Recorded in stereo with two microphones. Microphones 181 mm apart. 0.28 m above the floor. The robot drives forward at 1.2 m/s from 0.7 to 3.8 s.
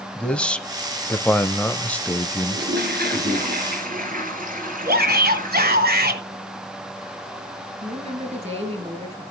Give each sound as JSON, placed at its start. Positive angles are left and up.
{"t": 0.1, "sound": "a man speaking", "side_deg": 5, "distance_m": 1.3}
{"t": 2.5, "sound": "a toilet flushing", "side_deg": -70, "distance_m": 3.5}
{"t": 4.8, "sound": "a shout", "side_deg": -60, "distance_m": 2.5}
{"t": 7.8, "sound": "a woman speaking", "side_deg": -35, "distance_m": 4.0}